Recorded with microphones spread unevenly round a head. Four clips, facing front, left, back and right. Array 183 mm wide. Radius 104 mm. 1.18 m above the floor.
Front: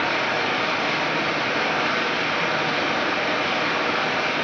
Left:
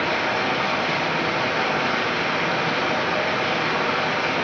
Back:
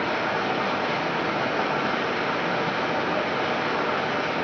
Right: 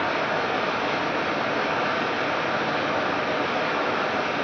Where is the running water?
115° left, 6.5 m.